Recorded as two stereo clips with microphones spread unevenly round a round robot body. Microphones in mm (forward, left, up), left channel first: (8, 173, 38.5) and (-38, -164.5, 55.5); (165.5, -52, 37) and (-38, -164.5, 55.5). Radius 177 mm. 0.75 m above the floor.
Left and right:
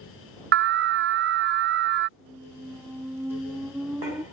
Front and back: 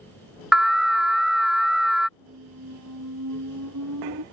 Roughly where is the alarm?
Ahead right.